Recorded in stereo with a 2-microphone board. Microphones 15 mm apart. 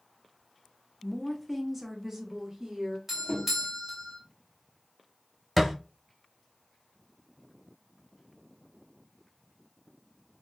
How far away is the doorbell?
About 1.3 m.